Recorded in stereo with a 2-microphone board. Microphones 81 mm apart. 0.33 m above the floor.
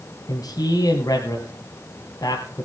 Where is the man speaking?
55° left (ahead or behind), 2.5 m.